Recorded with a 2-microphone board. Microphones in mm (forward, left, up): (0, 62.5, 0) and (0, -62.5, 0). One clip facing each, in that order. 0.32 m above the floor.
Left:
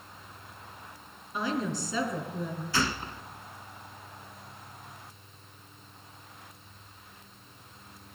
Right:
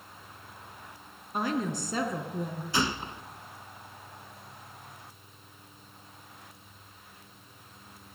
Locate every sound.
1.3 s a woman speaking: 50° right (ahead or behind), 3.5 m
2.7 s a gunshot: 20° right (ahead or behind), 0.6 m